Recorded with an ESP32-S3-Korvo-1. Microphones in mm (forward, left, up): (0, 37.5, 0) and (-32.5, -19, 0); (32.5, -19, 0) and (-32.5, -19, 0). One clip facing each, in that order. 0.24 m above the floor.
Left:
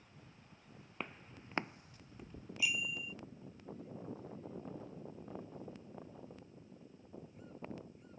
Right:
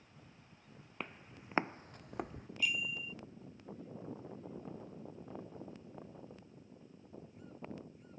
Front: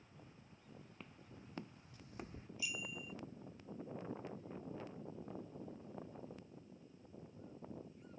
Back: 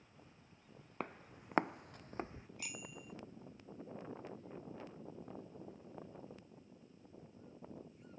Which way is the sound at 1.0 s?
150° left.